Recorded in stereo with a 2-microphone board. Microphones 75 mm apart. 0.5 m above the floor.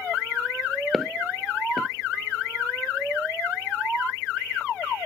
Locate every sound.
0.9 s footsteps: centre (ahead or behind), 0.6 m